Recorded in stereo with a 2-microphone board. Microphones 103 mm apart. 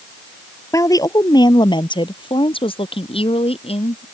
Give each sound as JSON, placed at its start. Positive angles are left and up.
{"t": 0.7, "sound": "a woman speaking", "side_deg": 30}